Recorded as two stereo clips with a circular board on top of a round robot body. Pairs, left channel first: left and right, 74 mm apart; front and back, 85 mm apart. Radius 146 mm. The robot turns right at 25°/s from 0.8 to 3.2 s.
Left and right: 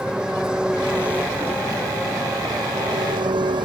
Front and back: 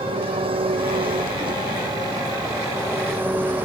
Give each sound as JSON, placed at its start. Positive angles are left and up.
{"t": 0.0, "sound": "an engine running", "azimuth_deg": -170}